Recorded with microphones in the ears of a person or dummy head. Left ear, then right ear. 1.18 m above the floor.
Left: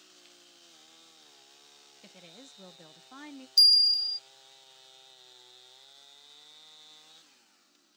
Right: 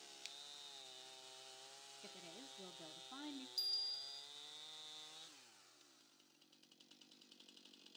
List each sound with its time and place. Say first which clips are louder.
0.2 s a finger snap: right 9 dB; 45° right (ahead or behind), 1.0 m
2.0 s a woman speaking: left 5 dB; 50° left (ahead or behind), 1.1 m
3.6 s a bell: left 22 dB; 50° left (ahead or behind), 0.5 m